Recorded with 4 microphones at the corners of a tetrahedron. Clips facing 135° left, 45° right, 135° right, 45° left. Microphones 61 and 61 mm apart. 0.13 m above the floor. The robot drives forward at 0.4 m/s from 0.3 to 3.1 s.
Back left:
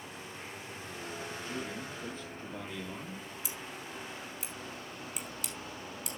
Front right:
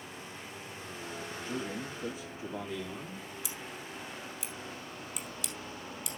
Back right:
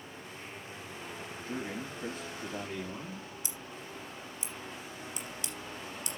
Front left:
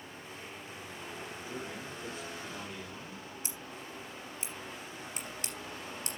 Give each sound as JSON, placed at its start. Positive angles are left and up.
{"t": 1.5, "sound": "a man speaking", "azimuth_deg": -120, "distance_m": 2.5}
{"t": 3.4, "sound": "scissors", "azimuth_deg": 85, "distance_m": 3.5}